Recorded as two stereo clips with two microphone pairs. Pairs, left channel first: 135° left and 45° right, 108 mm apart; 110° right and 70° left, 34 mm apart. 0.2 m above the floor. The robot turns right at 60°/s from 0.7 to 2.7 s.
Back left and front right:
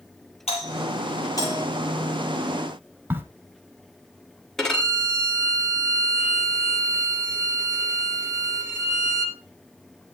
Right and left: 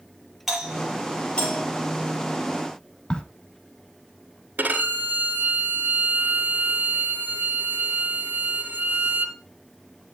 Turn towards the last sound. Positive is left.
turn(degrees=50)